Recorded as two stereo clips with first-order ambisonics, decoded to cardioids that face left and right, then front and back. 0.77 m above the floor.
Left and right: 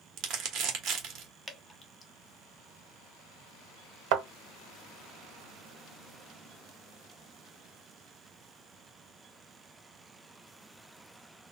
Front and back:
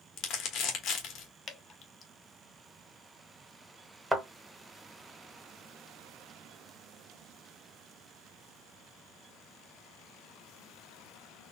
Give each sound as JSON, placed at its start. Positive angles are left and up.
{"t": 0.2, "sound": "crumpling", "azimuth_deg": -45, "distance_m": 1.0}
{"t": 1.5, "sound": "dripping", "azimuth_deg": 25, "distance_m": 0.5}
{"t": 4.1, "sound": "a thud", "azimuth_deg": -95, "distance_m": 1.1}